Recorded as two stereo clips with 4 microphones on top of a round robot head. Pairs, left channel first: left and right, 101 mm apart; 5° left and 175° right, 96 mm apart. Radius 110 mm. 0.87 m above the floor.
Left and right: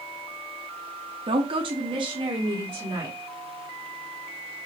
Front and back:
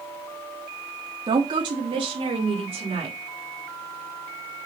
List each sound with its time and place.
1.3 s a woman speaking: 125° right, 1.3 m; by 3.2 s 140° right, 2.5 m